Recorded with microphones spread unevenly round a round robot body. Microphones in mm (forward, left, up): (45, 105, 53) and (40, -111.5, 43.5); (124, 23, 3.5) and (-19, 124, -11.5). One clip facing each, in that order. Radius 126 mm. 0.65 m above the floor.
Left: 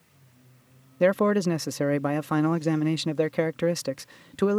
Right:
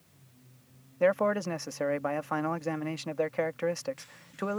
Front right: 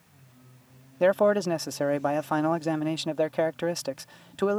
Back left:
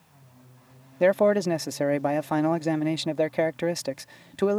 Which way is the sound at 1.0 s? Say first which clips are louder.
Left 5 dB, back left 1 dB; 75° left.